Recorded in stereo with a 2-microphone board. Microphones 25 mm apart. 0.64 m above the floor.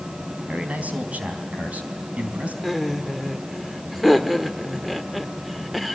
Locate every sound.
0.5 s a man speaking: 65° right (ahead or behind), 4.5 m
2.6 s laughter: centre (ahead or behind), 1.7 m